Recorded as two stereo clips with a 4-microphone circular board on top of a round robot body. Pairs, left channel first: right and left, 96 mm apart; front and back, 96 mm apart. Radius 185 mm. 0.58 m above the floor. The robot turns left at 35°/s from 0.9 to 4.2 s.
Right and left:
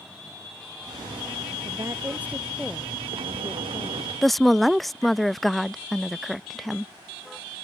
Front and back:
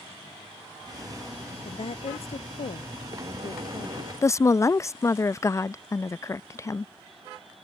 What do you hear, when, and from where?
1.6 s a woman speaking: 35° left; by 4.1 s 50° right
4.2 s a woman speaking: straight ahead